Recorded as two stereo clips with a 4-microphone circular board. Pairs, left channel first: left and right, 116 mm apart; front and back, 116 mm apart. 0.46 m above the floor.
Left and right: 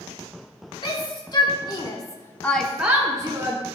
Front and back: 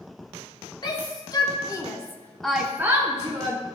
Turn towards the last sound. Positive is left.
turn(degrees=-140)